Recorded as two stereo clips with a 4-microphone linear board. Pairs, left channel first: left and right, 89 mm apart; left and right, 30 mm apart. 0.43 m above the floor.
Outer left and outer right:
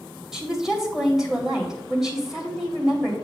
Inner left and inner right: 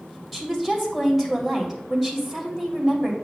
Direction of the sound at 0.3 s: 5° right (ahead or behind).